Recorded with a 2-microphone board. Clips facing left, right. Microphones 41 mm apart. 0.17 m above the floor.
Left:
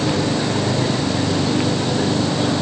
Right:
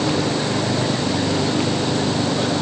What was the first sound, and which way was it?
Only background noise.